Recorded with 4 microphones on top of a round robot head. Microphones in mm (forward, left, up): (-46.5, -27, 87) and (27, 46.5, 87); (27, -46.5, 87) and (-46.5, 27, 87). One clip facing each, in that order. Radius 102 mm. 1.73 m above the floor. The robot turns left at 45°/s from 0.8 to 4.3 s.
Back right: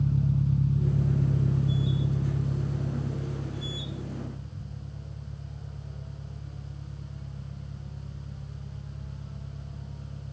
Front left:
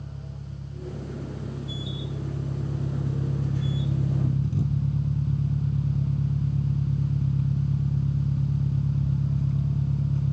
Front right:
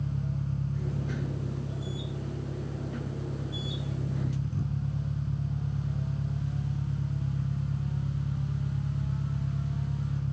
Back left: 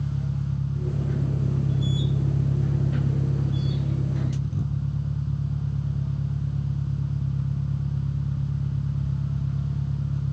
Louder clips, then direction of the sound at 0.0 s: Back right 13 dB, back left 4 dB; 145° right.